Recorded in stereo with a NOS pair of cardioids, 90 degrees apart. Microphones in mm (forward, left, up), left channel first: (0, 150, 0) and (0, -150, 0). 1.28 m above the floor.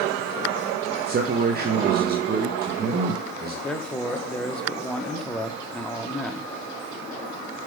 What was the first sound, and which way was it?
A man speaking, 30° right.